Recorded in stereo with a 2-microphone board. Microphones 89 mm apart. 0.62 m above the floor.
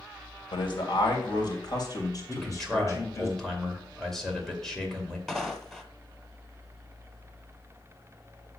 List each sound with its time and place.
0.5 s a man speaking: 65° left (ahead or behind), 2.5 m; by 3.3 s 30° left (ahead or behind), 3 m
2.3 s a man speaking: 5° left (ahead or behind), 2.5 m
5.3 s footsteps: 5° left (ahead or behind), 0.8 m